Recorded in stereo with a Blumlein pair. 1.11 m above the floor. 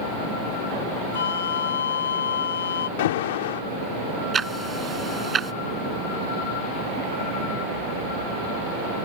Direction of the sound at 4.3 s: 15° right.